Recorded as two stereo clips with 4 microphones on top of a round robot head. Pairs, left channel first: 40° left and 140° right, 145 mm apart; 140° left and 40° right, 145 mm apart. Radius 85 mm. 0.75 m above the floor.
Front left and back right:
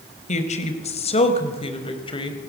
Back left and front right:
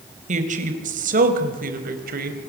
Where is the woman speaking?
Straight ahead, 4 m; by 2.4 s 20° right, 4 m.